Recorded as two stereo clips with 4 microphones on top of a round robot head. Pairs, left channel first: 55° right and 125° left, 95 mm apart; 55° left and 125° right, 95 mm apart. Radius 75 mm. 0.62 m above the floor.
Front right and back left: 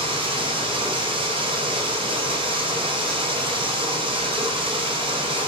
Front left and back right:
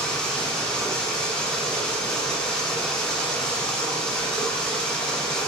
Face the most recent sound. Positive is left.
turn(degrees=135)